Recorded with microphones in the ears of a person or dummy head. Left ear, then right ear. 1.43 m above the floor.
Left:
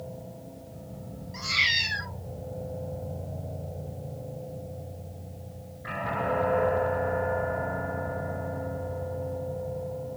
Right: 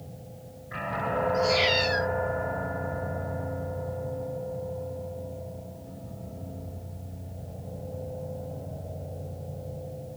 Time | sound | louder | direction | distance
1.3 | a cat meowing | left 1 dB | 75° left (ahead or behind) | 4 m